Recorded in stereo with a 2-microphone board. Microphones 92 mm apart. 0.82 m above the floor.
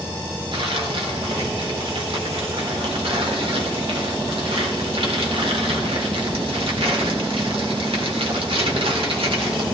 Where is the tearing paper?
75° right (ahead or behind), 3 m.